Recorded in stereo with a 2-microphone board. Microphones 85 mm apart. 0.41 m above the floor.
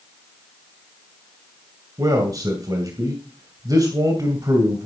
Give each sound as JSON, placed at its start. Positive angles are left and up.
{"t": 2.0, "sound": "a man speaking", "side_deg": -50, "distance_m": 2.0}